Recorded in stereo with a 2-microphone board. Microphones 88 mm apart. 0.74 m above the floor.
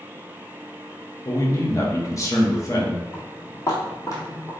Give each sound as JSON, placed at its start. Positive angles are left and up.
{"t": 1.2, "sound": "a man speaking", "side_deg": 35, "distance_m": 1.0}
{"t": 3.1, "sound": "footsteps", "side_deg": 30, "distance_m": 2.0}